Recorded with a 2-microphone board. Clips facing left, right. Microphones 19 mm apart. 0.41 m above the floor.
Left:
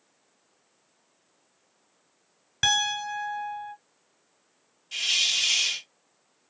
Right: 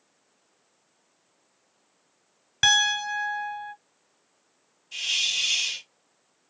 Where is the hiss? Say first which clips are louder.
Left 1 dB; 40° left (ahead or behind), 1.9 m.